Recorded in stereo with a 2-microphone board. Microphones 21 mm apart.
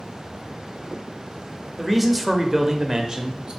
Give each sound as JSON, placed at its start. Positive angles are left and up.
{"t": 1.8, "sound": "a man speaking", "side_deg": 0, "distance_m": 1.0}